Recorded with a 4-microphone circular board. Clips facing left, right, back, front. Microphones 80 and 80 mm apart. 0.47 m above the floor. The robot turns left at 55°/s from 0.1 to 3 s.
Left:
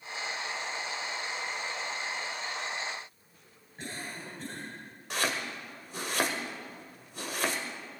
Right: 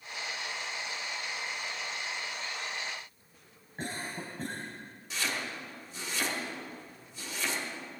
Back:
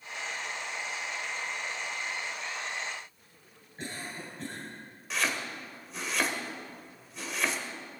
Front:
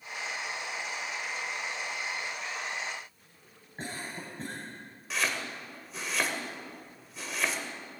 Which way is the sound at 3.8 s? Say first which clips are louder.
Right 3 dB, front 1 dB; 45° right.